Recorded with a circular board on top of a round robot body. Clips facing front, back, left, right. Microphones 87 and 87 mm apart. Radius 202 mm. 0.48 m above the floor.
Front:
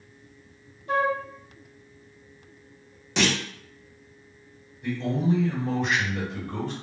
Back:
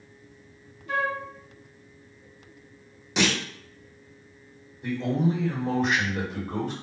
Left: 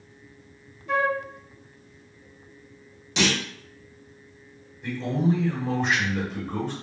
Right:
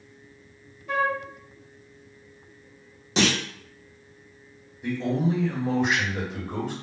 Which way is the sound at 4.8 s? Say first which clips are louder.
Back 1 dB, even; 160° right.